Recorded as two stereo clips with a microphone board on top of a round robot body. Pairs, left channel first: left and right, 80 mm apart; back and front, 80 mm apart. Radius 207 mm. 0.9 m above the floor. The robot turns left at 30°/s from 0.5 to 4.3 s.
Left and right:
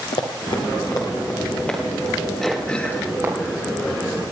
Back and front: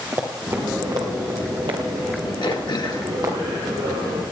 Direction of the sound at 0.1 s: 65° left.